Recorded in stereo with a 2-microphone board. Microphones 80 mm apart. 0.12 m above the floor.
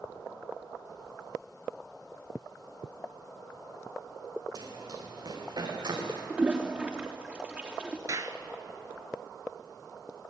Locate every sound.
4.5 s running footsteps: 50° right (ahead or behind), 8.5 m; by 6.2 s 65° right (ahead or behind), 7.5 m
6.3 s a toilet flushing: 15° right (ahead or behind), 3 m
8.1 s a clap: 45° right (ahead or behind), 1.5 m